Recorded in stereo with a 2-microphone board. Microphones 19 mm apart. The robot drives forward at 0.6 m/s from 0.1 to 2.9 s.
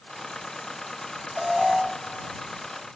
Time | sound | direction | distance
1.4 | an alarm | 10° right (ahead or behind) | 2 m